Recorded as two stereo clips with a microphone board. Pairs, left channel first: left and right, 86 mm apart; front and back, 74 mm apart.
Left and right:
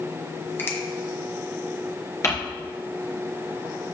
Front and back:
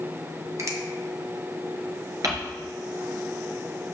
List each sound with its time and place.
0.6 s a finger snap: 150° left, 1.7 m
2.2 s crumpling: 145° left, 3 m